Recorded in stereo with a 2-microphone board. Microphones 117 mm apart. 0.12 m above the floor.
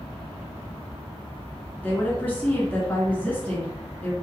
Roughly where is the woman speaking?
Centre.